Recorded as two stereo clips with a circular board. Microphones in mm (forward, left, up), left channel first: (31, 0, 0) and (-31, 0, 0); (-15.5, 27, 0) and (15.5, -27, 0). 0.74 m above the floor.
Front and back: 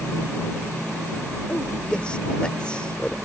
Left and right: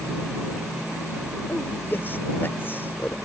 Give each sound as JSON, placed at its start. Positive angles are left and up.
{"t": 1.5, "sound": "a man speaking", "azimuth_deg": 70}